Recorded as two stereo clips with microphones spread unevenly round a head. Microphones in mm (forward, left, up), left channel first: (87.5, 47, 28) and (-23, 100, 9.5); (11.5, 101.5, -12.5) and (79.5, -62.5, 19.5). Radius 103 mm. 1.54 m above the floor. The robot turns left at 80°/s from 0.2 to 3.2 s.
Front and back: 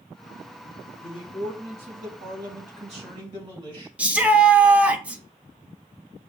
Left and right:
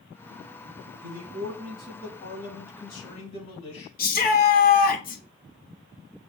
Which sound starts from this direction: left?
A shout, at 4.0 s.